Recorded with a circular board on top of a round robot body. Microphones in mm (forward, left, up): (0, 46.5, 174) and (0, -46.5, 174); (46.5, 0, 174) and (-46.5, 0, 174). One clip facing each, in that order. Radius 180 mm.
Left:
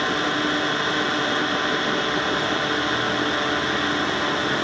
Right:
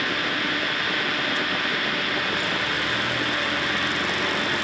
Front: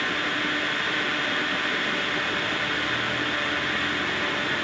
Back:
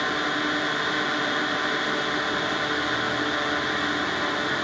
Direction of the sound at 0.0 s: 125° left.